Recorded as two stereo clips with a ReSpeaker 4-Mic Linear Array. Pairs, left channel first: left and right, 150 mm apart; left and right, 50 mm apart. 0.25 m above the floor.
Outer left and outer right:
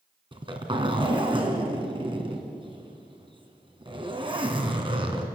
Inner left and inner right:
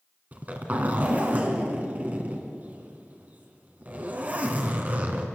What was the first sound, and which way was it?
A zipper, 35° right (ahead or behind).